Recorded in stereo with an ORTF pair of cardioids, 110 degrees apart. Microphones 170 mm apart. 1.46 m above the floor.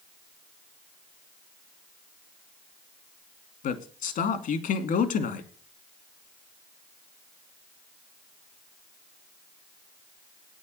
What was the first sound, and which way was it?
A man speaking, 55° left.